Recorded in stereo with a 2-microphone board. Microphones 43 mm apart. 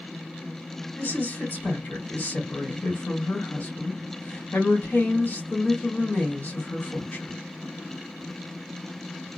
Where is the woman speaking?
45° left (ahead or behind), 1.6 m.